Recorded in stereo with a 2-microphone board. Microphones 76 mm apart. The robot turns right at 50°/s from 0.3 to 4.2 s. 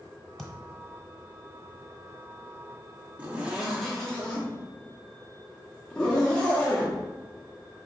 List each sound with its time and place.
0.4 s a thud: 5° left (ahead or behind), 1.2 m; by 0.8 s 25° left (ahead or behind), 1.2 m
3.2 s a zipper: 20° right (ahead or behind), 1.0 m; by 7.9 s 10° left (ahead or behind), 1.0 m